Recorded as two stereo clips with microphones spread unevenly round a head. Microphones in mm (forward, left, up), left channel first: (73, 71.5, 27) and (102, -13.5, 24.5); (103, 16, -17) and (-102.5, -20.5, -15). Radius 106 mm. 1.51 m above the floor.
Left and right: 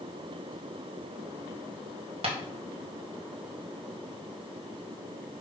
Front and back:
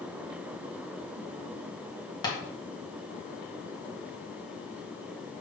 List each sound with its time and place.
2.2 s tapping: 60° right, 1.9 m